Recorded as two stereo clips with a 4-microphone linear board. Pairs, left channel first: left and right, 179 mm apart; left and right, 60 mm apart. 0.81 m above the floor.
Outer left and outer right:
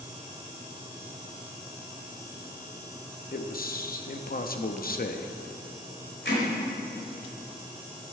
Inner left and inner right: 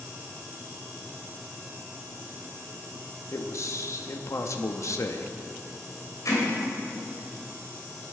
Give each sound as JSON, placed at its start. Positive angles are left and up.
{"t": 3.3, "sound": "a man speaking", "side_deg": 55, "distance_m": 0.8}
{"t": 6.2, "sound": "hammering", "side_deg": 75, "distance_m": 3.0}